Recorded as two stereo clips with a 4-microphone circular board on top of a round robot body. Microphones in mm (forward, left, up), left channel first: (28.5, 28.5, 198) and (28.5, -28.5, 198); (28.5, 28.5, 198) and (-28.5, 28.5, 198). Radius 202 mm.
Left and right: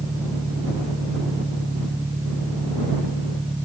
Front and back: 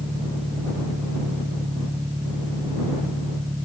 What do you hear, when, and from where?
0.0 s an engine running: 135° right